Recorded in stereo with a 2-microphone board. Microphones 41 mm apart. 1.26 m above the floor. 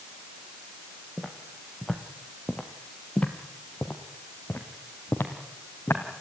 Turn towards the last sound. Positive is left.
turn(degrees=70)  # may be behind; listen again after turning